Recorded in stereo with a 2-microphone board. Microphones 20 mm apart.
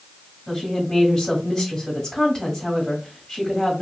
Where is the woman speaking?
30° left (ahead or behind), 1.6 m.